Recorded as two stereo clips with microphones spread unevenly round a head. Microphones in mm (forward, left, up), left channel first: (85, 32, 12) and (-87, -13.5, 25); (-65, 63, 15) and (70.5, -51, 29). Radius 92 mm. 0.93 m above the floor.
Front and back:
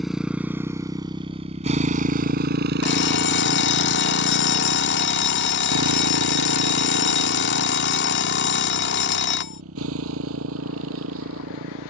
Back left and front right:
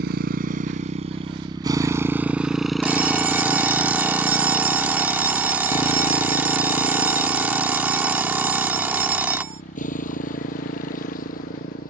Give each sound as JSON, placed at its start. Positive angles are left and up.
{"t": 0.0, "sound": "a motorcycle", "azimuth_deg": -75}
{"t": 2.8, "sound": "an alarm clock", "azimuth_deg": 40}